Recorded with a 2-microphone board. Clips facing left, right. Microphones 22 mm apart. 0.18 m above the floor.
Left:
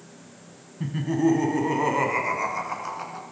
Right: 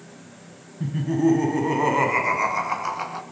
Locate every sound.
0.8 s laughter: 20° left (ahead or behind), 1.7 m; by 3.2 s 40° right (ahead or behind), 2.5 m